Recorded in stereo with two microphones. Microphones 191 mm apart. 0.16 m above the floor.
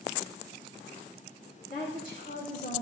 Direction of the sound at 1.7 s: 40° left (ahead or behind).